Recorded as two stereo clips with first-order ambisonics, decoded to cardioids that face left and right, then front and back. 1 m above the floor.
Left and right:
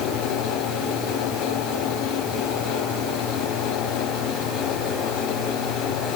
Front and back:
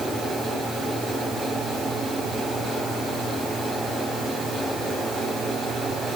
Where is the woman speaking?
No woman speaking in this recording.